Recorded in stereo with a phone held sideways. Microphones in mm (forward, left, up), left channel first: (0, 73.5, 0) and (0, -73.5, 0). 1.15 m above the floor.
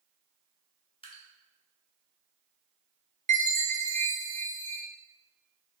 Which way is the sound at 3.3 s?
60° right (ahead or behind).